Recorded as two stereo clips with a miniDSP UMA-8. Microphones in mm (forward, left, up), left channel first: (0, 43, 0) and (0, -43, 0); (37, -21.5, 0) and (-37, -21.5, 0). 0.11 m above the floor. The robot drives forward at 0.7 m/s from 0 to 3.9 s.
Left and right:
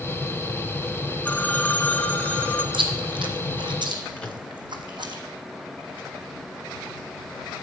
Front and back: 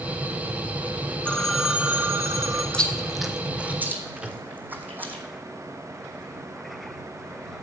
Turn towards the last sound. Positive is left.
turn(degrees=140)